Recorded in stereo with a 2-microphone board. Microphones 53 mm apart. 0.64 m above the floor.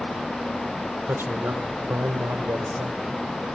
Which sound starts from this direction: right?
A man speaking, at 1.1 s.